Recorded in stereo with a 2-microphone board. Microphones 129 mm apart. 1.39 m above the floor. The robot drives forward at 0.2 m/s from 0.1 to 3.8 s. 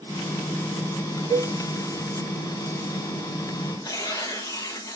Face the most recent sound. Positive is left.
turn(degrees=30)  # may be behind; listen again after turning